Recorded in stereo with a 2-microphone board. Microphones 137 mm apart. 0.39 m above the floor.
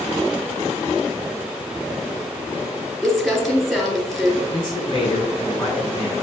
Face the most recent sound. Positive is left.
turn(degrees=40)  # may be behind; listen again after turning